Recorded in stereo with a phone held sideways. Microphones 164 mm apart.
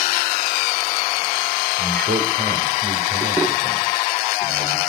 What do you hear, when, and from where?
1.8 s a man speaking: 75° right (ahead or behind), 5.5 m